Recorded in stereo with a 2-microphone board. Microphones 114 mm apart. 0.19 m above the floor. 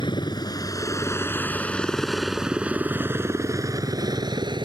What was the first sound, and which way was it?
A helicopter, 45° left (ahead or behind).